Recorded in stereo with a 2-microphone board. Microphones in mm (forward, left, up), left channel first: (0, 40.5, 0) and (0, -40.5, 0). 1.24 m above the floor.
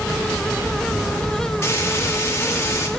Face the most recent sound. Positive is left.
turn(degrees=35)  # may be behind; listen again after turning